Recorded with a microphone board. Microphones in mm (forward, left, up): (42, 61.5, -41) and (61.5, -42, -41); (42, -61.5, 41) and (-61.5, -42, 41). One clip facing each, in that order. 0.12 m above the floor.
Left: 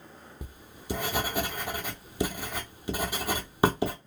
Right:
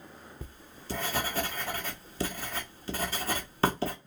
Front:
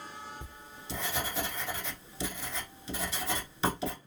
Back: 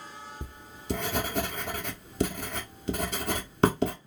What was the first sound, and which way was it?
Writing, 170° left.